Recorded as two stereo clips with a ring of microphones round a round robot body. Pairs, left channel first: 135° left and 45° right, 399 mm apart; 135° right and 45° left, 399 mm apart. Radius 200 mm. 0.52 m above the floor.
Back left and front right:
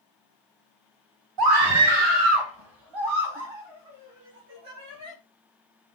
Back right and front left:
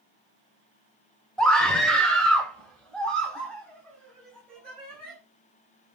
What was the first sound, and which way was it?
A scream, 45° right.